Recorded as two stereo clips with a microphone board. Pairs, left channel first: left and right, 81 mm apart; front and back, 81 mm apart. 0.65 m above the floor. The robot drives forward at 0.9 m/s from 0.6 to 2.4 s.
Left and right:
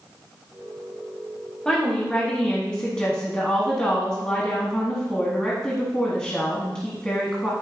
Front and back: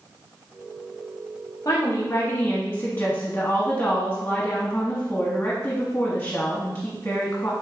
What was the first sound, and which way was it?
A woman speaking, 10° left.